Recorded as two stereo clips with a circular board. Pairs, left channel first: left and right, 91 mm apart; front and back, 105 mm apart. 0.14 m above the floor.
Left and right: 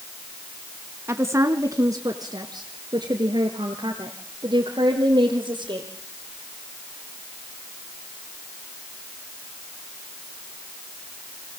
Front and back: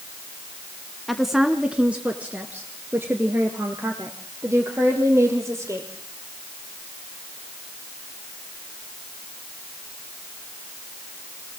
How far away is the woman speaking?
About 1.1 m.